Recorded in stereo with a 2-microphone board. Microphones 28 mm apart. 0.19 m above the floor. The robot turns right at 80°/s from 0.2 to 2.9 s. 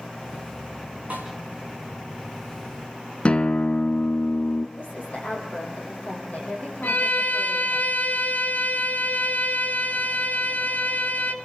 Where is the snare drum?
65° right (ahead or behind), 5 m; by 1.3 s 80° right, 5 m.